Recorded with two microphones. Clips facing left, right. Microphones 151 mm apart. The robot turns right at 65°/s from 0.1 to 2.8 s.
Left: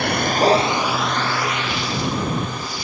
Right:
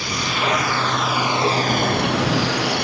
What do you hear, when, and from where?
0.0 s a vehicle: 120° left; by 2.9 s 65° right